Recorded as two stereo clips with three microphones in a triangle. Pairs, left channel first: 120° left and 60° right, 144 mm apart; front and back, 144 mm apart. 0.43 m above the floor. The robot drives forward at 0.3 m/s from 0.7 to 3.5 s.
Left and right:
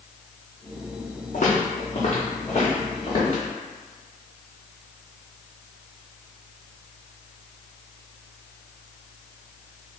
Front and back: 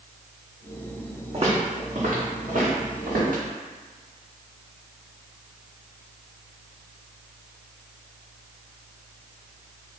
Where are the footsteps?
135° left, 1.1 m; by 3.4 s 175° left, 2.5 m.